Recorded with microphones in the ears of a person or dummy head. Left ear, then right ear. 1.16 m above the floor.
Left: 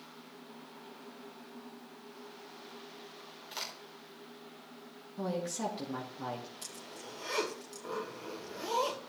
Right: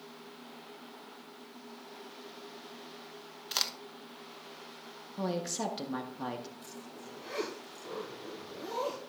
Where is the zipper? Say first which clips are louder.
Left 1 dB; 50° left (ahead or behind), 1.7 m.